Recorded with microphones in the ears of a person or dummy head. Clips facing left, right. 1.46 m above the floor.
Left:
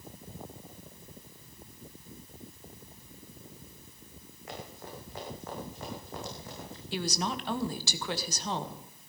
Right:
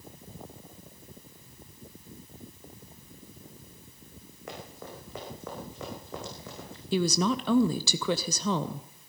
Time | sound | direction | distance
4.5 | running footsteps | 55° right (ahead or behind) | 5 m
6.9 | a woman speaking | 80° right | 0.7 m